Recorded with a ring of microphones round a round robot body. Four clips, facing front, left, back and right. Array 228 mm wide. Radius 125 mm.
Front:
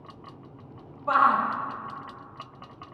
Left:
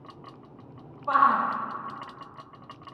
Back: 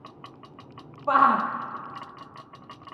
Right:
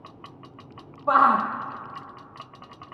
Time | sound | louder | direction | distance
1.1 | a shout | right 3 dB, back 1 dB | 130° right | 0.7 m